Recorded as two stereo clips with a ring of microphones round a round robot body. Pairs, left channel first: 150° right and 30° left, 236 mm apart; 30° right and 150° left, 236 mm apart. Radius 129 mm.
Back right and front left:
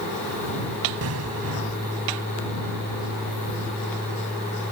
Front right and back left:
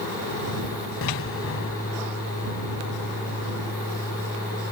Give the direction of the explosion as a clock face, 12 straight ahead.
12 o'clock.